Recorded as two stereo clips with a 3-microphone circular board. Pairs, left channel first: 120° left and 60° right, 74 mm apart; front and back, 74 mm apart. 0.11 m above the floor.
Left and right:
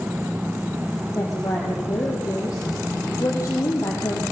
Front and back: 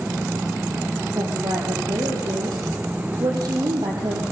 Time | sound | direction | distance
1.1 | a woman speaking | 160° left | 4.5 m